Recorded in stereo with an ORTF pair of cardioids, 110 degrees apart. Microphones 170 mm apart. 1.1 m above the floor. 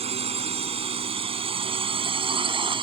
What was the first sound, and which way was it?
A drone, 35° right.